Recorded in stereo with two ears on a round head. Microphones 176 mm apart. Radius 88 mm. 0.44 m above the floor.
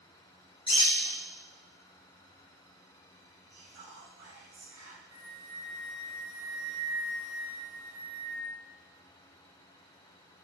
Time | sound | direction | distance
0.7 | a bird | 30° left (ahead or behind) | 1.3 m
3.5 | whispering | 65° right (ahead or behind) | 1.9 m
5.1 | a flute | 20° right (ahead or behind) | 0.6 m